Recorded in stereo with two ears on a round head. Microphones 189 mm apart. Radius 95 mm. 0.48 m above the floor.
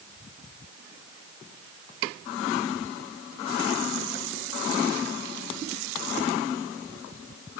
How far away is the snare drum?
I don't hear a snare drum.